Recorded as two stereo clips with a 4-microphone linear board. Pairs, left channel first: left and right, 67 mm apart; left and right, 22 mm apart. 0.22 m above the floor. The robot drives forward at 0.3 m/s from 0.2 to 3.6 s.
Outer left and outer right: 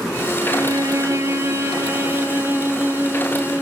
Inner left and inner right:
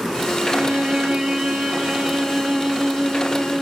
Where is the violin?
60° right (ahead or behind), 0.6 m; by 3.6 s 20° right (ahead or behind), 1.3 m.